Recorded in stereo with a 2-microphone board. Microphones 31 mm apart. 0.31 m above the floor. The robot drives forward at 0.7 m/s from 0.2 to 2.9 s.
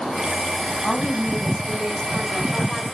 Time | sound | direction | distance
0.8 | a woman speaking | 15° left (ahead or behind) | 2.5 m